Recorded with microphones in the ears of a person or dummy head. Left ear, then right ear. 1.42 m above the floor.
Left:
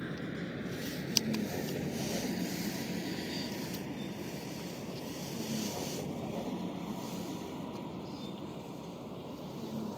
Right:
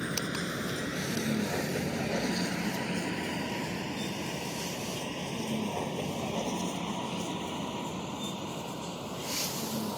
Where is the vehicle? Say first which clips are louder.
Right 7 dB; 50° right (ahead or behind); by 10.0 s 60° right (ahead or behind).